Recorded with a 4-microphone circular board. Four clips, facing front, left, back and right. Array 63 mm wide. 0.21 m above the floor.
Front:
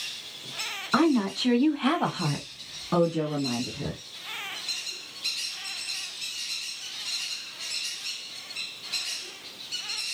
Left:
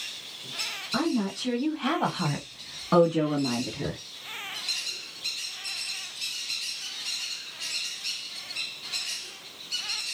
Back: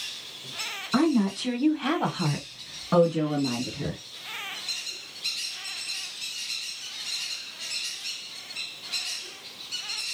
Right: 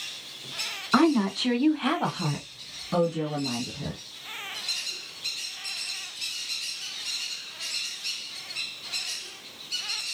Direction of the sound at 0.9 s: 65° right.